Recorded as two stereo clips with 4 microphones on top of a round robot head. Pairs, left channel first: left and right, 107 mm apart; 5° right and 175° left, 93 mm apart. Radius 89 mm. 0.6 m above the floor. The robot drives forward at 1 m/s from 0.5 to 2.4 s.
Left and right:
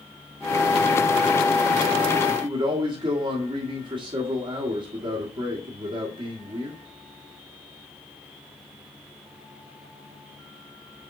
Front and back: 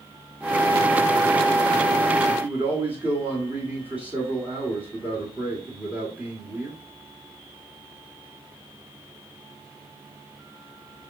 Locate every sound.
2.4 s a man speaking: 110° right, 1.6 m